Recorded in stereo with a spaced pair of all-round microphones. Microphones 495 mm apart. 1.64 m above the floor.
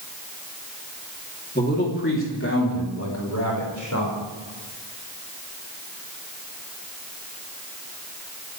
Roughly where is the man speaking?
Centre.